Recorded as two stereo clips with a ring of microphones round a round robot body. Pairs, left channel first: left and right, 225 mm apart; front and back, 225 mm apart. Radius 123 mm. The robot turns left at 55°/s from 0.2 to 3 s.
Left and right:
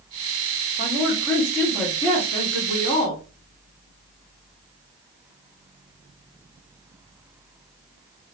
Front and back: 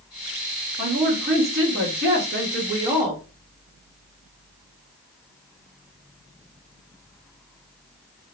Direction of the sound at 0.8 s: 130° right.